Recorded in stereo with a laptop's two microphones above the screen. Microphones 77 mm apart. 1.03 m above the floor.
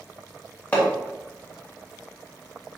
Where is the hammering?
20° left (ahead or behind), 1.6 m.